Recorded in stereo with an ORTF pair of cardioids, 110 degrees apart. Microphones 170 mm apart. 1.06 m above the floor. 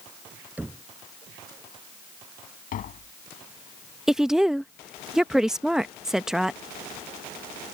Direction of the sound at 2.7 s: 55° left.